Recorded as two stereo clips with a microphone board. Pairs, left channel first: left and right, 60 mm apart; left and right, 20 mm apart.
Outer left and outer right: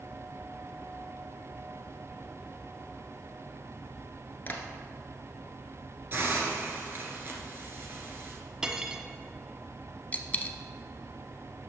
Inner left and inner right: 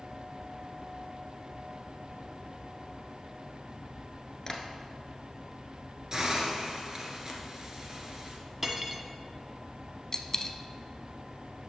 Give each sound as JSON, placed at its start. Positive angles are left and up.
{"t": 4.5, "sound": "tapping", "side_deg": 30, "distance_m": 1.1}
{"t": 6.1, "sound": "a hiss", "side_deg": -35, "distance_m": 1.5}
{"t": 8.6, "sound": "cutlery clinking", "side_deg": -10, "distance_m": 0.7}
{"t": 10.1, "sound": "a dropped coin", "side_deg": 25, "distance_m": 0.5}